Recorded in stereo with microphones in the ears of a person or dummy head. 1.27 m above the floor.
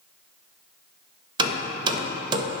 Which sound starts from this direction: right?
Hammering, at 1.4 s.